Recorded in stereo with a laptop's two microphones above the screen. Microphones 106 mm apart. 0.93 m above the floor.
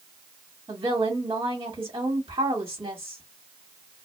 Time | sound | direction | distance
0.7 | a woman speaking | 55° right (ahead or behind) | 1.5 m